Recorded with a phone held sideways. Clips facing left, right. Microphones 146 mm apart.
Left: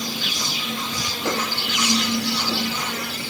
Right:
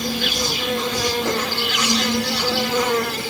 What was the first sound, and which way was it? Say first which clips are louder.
An insect: right 6 dB; 85° right.